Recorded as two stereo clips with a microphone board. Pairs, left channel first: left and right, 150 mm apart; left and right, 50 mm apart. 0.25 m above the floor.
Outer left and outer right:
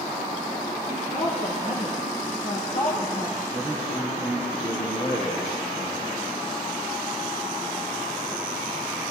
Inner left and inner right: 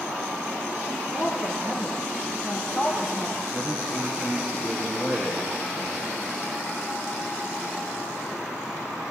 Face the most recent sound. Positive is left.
turn(degrees=-45)  # may be behind; listen again after turning